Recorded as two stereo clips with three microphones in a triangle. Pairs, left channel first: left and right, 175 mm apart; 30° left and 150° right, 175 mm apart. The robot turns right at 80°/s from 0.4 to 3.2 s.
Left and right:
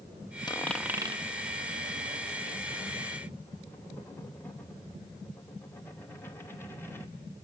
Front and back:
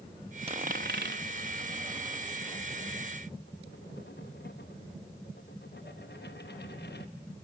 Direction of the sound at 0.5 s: 155° left.